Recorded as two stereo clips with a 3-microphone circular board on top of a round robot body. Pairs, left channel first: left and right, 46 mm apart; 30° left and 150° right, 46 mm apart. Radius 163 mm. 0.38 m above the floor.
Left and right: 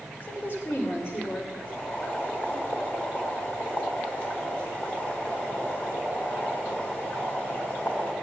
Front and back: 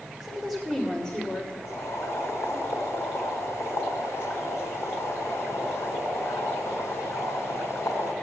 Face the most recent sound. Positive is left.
turn(degrees=35)